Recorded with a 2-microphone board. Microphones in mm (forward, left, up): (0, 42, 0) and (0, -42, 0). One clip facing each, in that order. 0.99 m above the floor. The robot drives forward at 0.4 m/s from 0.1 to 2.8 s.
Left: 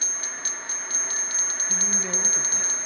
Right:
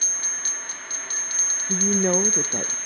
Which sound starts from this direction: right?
A woman speaking, at 1.7 s.